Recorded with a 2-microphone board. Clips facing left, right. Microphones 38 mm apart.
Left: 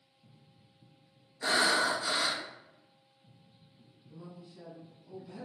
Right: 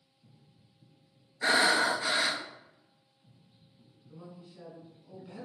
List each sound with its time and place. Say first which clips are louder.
1.4 s breathing: right 2 dB; 75° right (ahead or behind), 0.5 m
4.1 s a woman speaking: even; 30° right (ahead or behind), 1.5 m